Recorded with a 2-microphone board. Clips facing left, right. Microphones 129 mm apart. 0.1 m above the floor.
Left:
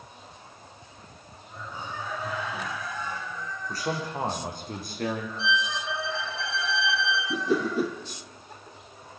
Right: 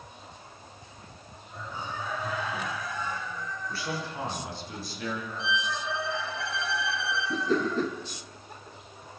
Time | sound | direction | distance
3.7 | a man speaking | 40° left (ahead or behind) | 6 m
5.4 | a violin | 50° right (ahead or behind) | 4.5 m
7.3 | a whoosh | 10° left (ahead or behind) | 1.3 m